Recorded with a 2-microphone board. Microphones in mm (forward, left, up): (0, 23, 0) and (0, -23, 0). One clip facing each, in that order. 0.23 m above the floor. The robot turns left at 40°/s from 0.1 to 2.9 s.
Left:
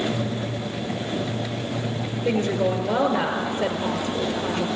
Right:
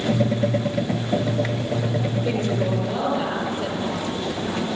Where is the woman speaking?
35° left (ahead or behind), 4 m; by 4.7 s 55° left (ahead or behind), 4 m.